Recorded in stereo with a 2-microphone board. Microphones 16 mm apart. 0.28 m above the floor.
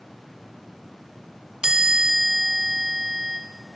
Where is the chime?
55° right (ahead or behind), 0.7 m.